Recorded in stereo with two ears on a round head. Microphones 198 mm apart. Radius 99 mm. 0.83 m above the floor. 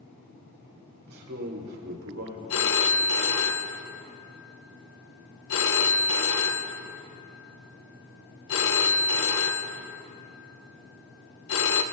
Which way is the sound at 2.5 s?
65° left (ahead or behind).